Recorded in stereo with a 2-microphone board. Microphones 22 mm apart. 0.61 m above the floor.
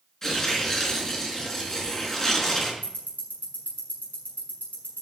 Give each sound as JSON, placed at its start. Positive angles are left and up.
{"t": 0.2, "sound": "tearing paper", "side_deg": 15, "distance_m": 4.0}
{"t": 2.8, "sound": "ticking", "side_deg": 80, "distance_m": 6.5}